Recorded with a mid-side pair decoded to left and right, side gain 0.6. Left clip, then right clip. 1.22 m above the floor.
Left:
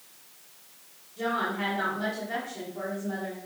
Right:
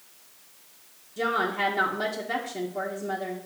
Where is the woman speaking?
55° right, 1.4 m.